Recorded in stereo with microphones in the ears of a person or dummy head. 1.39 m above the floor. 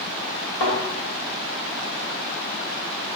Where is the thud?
65° left (ahead or behind), 3 m.